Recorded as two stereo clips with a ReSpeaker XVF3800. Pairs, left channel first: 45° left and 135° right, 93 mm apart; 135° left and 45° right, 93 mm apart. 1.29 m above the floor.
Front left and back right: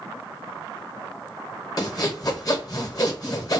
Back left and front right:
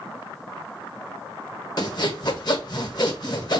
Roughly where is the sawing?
Left.